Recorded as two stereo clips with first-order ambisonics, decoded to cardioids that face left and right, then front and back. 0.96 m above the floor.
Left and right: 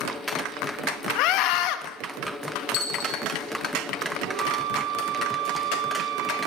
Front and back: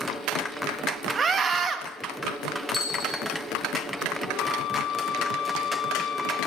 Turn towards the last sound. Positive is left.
turn(degrees=-55)